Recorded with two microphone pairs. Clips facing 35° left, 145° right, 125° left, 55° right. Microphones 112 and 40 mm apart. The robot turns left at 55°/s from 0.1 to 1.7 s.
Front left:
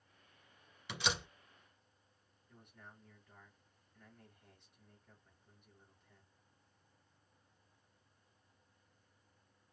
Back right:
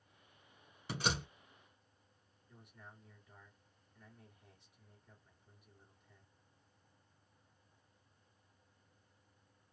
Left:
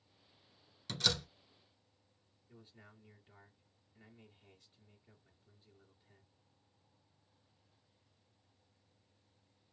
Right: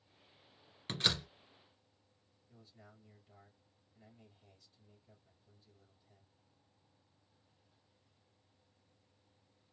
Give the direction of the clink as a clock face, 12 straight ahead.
No clink in this recording.